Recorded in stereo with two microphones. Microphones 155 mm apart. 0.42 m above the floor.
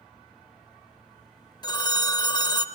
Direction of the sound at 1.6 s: 30° left (ahead or behind).